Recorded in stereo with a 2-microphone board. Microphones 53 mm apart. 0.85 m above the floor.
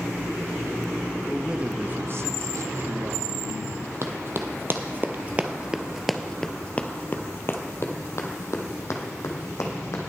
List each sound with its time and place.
1.3 s a man speaking: centre (ahead or behind), 0.8 m; by 3.9 s 65° right (ahead or behind), 1.8 m
4.0 s running footsteps: 55° right (ahead or behind), 1.4 m; by 10.0 s 70° left (ahead or behind), 2.5 m